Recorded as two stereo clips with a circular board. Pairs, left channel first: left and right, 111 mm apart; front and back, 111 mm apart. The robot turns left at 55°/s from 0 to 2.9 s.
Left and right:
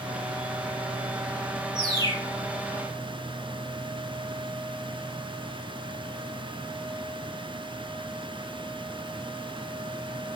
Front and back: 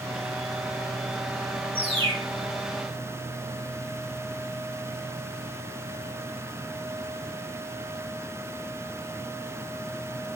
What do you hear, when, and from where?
1.8 s a bird: 155° left, 3.5 m; by 2.3 s 125° left, 3.5 m